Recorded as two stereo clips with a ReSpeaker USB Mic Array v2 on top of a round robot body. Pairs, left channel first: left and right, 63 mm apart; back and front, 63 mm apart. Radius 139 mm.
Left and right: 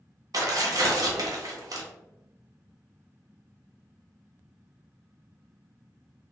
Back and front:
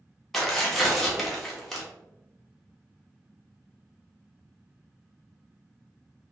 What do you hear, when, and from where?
0.3 s tearing paper: 90° right, 1.2 m